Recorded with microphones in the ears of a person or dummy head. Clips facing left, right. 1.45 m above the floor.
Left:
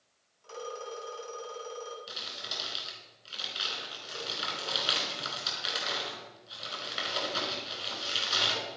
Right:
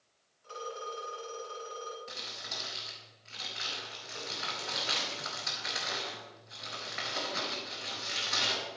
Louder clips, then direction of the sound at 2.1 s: Left 1 dB; 55° left (ahead or behind).